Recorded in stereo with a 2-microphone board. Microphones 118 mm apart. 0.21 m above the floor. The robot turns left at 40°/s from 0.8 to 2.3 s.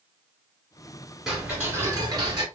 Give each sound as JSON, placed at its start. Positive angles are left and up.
{"t": 1.3, "sound": "ticking", "azimuth_deg": -5, "distance_m": 1.7}